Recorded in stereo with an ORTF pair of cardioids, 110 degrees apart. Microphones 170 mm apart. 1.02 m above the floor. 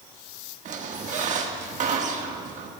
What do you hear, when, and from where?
0.7 s a squeak: 45° right, 1.5 m